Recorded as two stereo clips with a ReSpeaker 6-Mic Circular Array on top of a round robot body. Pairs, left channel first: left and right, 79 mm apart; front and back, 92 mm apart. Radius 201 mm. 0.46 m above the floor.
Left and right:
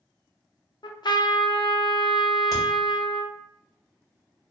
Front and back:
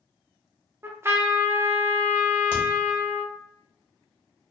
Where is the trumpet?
115° left, 0.6 m.